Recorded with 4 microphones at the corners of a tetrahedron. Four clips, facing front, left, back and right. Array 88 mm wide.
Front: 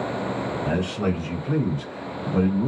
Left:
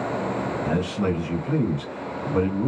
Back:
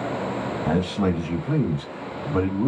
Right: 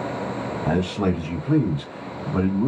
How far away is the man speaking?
About 1.9 m.